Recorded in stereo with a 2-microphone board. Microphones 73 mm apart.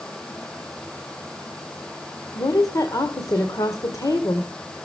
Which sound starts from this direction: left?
A woman speaking, at 2.4 s.